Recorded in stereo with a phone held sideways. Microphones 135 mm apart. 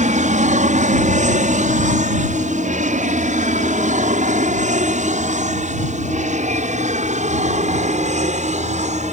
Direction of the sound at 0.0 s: 60° right (ahead or behind).